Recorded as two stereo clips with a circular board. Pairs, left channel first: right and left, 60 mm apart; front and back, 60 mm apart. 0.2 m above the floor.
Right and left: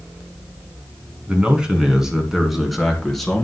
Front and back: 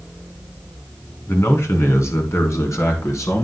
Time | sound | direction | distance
1.3 | a man speaking | 25° left | 2 m